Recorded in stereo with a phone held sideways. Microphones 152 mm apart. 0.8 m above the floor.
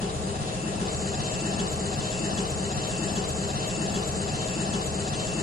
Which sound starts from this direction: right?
An engine running, at 0.0 s.